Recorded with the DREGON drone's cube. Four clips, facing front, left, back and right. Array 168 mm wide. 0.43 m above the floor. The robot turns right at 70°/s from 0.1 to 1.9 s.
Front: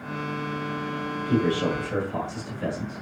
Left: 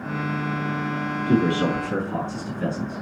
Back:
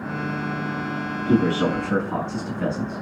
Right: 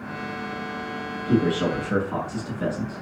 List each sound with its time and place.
1.3 s a man speaking: 155° left, 5 m; by 3.0 s 160° right, 5 m